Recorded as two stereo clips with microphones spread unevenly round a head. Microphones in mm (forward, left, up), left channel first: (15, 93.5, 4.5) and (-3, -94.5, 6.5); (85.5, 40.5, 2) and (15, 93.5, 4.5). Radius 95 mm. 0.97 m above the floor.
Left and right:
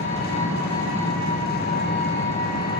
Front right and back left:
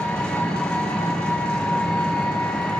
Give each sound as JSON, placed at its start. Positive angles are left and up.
{"t": 0.0, "sound": "an engine running", "azimuth_deg": 40, "distance_m": 5.5}